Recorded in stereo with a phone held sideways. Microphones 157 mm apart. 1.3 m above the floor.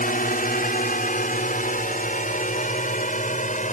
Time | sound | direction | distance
0.0 | a drone | 65° left (ahead or behind) | ?